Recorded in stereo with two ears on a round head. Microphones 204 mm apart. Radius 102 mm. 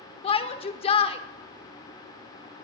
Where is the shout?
25° left (ahead or behind), 0.8 m.